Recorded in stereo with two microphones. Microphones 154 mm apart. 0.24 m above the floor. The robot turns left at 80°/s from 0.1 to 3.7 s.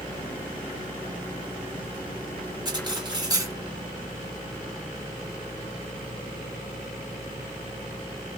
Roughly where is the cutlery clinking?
Right.